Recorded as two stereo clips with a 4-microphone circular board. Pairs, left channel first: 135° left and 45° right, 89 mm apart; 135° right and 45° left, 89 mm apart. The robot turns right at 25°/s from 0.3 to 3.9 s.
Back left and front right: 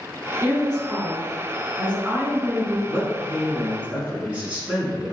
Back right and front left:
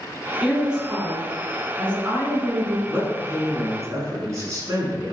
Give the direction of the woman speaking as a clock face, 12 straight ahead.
1 o'clock.